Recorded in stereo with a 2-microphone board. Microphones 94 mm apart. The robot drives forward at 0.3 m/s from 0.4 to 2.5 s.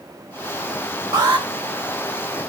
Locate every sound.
1.1 s an alarm: 55° right (ahead or behind), 3 m; by 1.5 s 50° right (ahead or behind), 3 m